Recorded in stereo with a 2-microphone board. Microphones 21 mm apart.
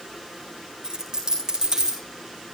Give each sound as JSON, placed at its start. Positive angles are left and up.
{"t": 0.8, "sound": "a dropped coin", "side_deg": -30, "distance_m": 4.5}